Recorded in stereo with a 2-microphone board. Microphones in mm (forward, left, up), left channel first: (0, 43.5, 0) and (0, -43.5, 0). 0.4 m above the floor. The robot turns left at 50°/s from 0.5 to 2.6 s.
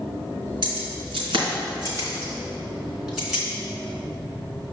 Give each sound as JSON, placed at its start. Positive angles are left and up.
{"t": 0.6, "sound": "keys jangling", "side_deg": -70, "distance_m": 3.0}